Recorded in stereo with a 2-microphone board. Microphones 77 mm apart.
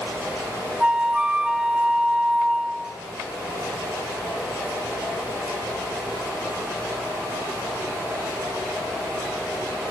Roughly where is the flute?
Centre.